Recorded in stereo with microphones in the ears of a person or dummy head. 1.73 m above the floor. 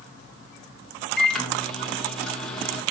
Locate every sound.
1.2 s a microwave: 5° left (ahead or behind), 1.7 m